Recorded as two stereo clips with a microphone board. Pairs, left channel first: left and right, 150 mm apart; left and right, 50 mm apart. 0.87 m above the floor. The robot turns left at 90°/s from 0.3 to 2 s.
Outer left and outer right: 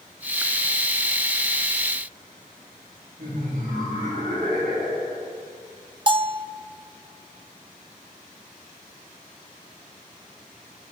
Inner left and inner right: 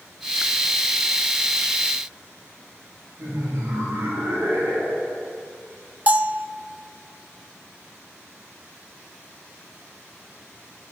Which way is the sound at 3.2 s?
80° right.